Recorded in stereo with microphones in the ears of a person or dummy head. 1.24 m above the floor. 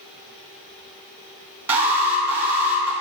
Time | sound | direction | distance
1.7 | an alarm | 10° right (ahead or behind) | 3 m